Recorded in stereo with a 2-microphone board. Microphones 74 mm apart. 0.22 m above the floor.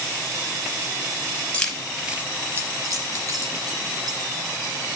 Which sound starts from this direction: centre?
Keys jangling, at 1.5 s.